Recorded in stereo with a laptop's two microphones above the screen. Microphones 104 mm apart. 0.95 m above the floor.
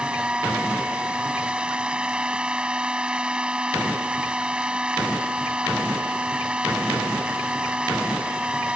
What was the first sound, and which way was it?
A machine running, 10° right (ahead or behind).